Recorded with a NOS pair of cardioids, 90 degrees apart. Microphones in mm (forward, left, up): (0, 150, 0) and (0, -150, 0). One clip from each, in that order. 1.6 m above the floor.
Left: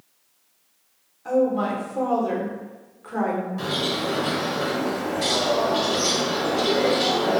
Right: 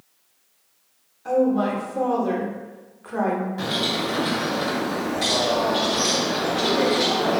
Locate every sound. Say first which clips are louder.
1.2 s a woman speaking: right 1 dB; 5° right, 0.8 m
3.6 s a bird: right 1 dB; 5° right, 1.0 m